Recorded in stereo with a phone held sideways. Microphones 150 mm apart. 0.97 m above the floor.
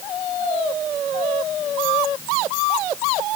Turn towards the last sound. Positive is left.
No sound to turn to.